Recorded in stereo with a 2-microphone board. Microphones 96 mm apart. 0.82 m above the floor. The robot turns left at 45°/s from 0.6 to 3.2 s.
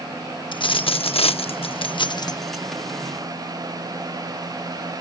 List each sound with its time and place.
0.5 s a dropped coin: 120° left; by 2.6 s 30° left